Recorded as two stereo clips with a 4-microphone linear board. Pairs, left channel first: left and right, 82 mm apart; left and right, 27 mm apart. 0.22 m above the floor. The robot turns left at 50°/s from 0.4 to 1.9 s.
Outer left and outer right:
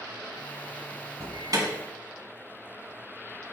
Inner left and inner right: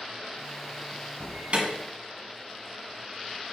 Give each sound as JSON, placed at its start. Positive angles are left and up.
{"t": 1.2, "sound": "an alarm", "side_deg": -45, "distance_m": 2.0}